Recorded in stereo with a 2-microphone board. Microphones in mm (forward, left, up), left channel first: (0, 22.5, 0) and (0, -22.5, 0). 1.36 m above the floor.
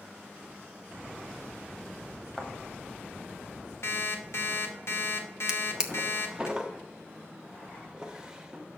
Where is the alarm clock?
65° left (ahead or behind), 1.2 m.